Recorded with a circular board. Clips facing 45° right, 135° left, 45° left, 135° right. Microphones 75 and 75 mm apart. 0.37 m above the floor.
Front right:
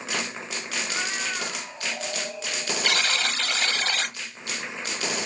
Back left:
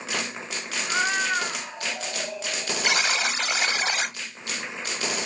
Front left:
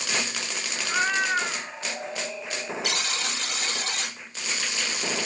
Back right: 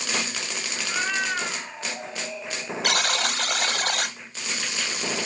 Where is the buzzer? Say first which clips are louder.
Back left 2 dB, back right 5 dB; 150° right, 0.8 m.